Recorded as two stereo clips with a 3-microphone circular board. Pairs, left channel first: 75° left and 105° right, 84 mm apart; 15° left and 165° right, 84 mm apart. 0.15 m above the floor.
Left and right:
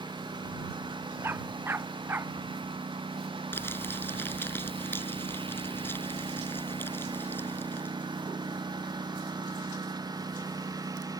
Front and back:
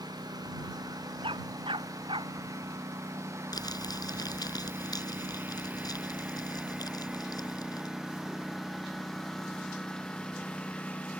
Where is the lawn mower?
130° right; by 11.2 s 60° right.